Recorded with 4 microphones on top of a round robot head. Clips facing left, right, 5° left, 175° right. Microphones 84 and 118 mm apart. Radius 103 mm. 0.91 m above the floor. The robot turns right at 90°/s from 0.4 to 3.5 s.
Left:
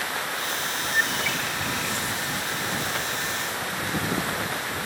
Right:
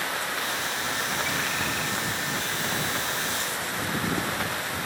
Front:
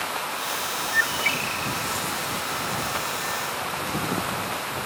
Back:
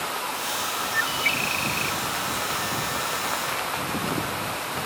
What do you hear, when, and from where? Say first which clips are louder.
0.9 s a bird: left 5 dB, front 1 dB; 100° left; by 2.0 s 165° right